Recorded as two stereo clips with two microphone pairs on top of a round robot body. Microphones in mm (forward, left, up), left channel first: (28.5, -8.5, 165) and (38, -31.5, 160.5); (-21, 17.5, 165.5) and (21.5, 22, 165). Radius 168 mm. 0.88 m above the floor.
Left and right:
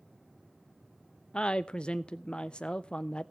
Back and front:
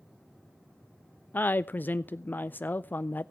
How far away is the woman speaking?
About 0.5 m.